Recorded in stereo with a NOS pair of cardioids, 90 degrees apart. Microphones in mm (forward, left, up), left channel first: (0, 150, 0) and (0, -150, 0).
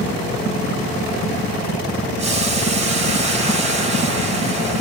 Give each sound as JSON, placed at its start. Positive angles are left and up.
{"t": 2.2, "sound": "boiling", "azimuth_deg": -20, "distance_m": 0.8}